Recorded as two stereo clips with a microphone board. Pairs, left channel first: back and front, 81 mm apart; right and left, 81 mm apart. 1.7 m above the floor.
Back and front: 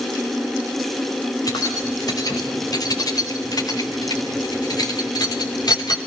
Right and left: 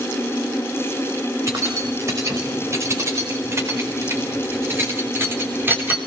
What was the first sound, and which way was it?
Keys jangling, 140° left.